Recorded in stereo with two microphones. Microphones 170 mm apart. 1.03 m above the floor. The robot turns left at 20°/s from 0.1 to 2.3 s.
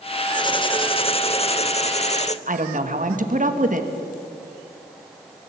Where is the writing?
140° left, 0.9 m; by 2.4 s 100° left, 0.9 m.